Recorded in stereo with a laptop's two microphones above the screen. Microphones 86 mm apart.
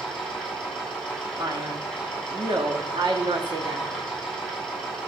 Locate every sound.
0.0 s a machine running: 10° left (ahead or behind), 7 m
1.4 s a man speaking: 60° right (ahead or behind), 2 m